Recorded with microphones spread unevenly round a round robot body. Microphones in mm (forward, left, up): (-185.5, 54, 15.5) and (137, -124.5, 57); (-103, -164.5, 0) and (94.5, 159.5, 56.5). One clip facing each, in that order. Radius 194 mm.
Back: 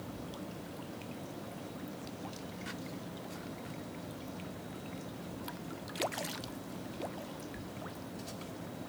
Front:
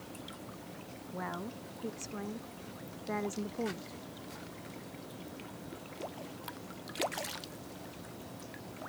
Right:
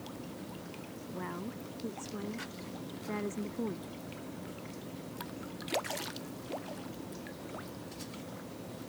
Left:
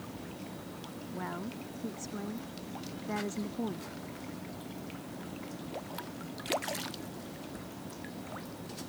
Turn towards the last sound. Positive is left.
turn(degrees=-25)